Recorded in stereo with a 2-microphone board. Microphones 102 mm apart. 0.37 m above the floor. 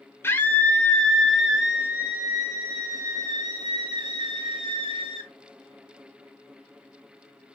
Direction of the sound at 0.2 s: 25° left (ahead or behind).